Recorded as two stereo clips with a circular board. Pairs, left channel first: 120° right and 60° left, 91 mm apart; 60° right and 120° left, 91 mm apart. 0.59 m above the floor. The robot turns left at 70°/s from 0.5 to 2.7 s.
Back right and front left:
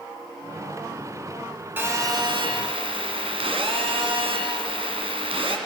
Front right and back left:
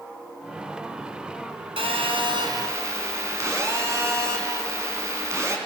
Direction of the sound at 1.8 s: 130° left.